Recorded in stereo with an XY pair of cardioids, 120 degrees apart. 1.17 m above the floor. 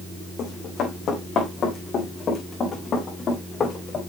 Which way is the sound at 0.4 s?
55° left.